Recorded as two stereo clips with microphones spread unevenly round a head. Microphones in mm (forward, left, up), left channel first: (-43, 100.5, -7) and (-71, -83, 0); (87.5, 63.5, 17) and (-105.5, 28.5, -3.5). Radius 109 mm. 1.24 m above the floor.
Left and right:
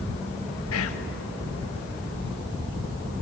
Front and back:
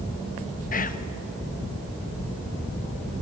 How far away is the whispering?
About 1.8 m.